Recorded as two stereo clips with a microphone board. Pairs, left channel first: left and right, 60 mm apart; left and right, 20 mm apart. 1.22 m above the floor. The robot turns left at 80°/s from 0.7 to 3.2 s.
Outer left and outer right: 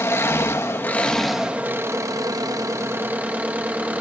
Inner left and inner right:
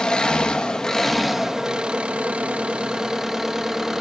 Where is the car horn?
No car horn in this recording.